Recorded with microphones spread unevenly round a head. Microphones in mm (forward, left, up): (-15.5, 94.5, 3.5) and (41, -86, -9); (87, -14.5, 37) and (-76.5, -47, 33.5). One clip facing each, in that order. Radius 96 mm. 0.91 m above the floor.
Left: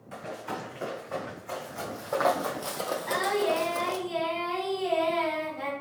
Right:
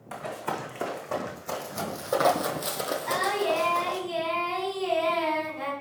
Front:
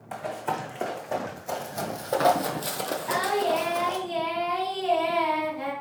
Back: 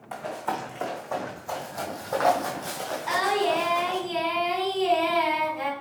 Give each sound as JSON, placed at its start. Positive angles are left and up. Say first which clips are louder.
{"t": 0.1, "sound": "running footsteps", "louder": "right 3 dB, even", "azimuth_deg": -65, "distance_m": 2.5}
{"t": 3.1, "sound": "singing", "louder": "left 1 dB, back 1 dB", "azimuth_deg": -165, "distance_m": 3.5}